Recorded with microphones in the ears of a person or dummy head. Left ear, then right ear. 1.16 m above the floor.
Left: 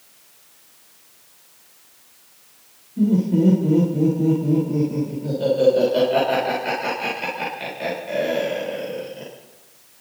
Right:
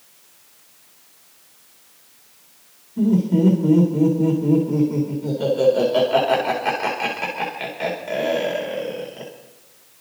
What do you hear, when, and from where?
3.0 s laughter: 30° right (ahead or behind), 3.5 m